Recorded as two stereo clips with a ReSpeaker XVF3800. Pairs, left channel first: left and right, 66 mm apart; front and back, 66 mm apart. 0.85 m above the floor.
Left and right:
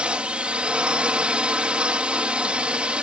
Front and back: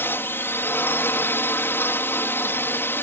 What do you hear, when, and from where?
0.0 s a drone: 25° right